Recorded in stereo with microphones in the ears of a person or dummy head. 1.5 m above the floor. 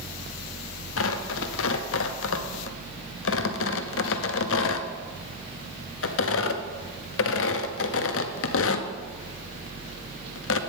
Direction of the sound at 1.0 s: 65° left (ahead or behind).